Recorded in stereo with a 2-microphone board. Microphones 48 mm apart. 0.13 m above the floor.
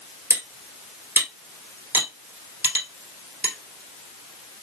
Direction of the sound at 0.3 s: 60° right (ahead or behind).